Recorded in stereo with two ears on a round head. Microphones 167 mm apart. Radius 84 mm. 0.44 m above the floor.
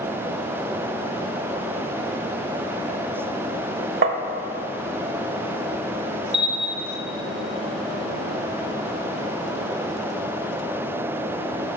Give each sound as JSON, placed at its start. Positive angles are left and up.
{"t": 4.0, "sound": "tapping", "side_deg": -60, "distance_m": 1.0}
{"t": 6.3, "sound": "a bell", "side_deg": -30, "distance_m": 1.4}